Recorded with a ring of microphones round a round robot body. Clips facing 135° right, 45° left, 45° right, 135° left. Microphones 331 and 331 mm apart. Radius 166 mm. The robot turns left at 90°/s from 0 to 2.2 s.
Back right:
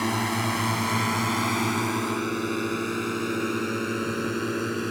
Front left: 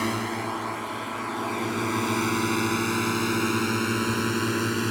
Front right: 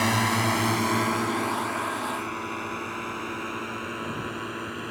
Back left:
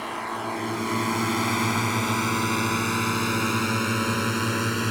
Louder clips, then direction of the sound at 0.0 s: Back right 1 dB, front right 7 dB; 45° right.